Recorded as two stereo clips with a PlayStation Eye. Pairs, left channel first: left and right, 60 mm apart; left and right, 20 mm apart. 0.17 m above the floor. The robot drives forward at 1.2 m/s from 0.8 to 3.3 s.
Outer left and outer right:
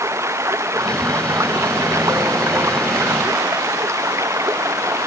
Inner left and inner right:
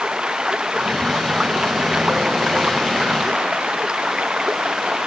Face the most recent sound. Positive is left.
turn(degrees=-50)  # may be behind; listen again after turning